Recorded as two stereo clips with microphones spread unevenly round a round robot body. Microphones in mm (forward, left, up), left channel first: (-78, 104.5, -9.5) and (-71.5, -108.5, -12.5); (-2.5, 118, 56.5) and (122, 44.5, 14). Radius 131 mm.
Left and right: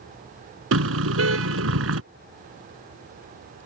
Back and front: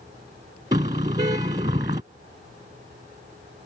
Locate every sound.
0.7 s a car horn: 100° right